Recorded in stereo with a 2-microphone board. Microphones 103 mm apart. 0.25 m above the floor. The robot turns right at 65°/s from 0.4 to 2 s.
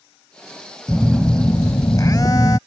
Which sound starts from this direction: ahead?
A phone buzzing, at 0.9 s.